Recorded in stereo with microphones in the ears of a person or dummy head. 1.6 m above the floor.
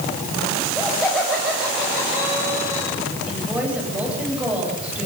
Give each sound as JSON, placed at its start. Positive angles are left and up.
{"t": 0.6, "sound": "laughter", "side_deg": 5, "distance_m": 7.5}
{"t": 3.3, "sound": "a woman speaking", "side_deg": -10, "distance_m": 10.0}